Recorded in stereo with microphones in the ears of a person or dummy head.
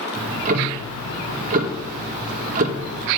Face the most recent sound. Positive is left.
turn(degrees=-40)  # may be behind; listen again after turning